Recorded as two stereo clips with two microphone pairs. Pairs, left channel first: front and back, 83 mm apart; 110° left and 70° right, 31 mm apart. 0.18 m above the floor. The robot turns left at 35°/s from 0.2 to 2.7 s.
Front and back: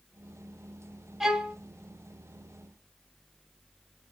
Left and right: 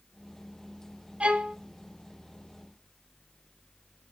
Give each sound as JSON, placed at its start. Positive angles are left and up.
{"t": 1.2, "sound": "a violin", "azimuth_deg": -95, "distance_m": 0.5}